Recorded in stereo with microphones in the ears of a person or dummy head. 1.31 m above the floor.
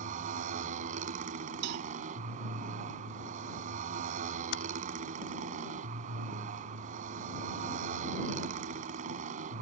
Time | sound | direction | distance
0.0 | a motorcycle | 40° right (ahead or behind) | ?
1.6 | a cowbell | 60° right (ahead or behind) | ?
4.5 | typing on a keyboard | 75° left (ahead or behind) | ?